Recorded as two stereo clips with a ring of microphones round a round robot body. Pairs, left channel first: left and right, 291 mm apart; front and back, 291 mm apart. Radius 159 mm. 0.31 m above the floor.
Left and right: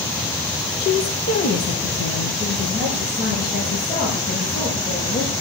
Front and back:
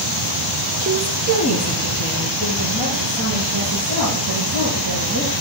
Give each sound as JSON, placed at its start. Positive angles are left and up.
{"t": 0.8, "sound": "a woman speaking", "azimuth_deg": 130, "distance_m": 1.0}